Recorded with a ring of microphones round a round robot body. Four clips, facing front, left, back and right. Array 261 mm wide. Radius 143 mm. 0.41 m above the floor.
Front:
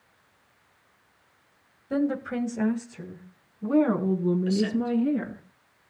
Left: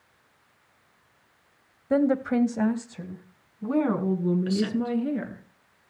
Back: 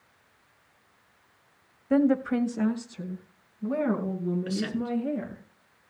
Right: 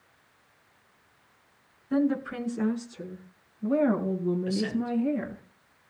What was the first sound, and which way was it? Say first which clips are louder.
A woman speaking: left 4 dB, back 4 dB; 105° left.